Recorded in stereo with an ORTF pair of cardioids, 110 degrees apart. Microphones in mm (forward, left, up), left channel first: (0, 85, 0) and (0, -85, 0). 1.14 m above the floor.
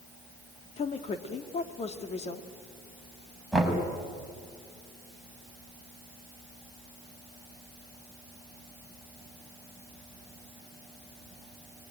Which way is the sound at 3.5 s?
Straight ahead.